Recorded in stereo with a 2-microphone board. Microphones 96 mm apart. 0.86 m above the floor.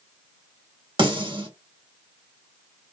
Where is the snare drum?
55° right (ahead or behind), 1.4 m.